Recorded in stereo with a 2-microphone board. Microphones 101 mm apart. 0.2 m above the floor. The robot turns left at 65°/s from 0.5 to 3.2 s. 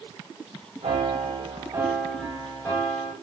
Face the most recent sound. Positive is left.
turn(degrees=105)